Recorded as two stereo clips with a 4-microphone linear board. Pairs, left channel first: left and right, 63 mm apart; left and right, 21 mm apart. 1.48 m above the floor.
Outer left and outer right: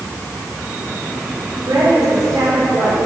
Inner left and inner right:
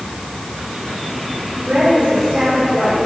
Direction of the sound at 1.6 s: 70° right (ahead or behind).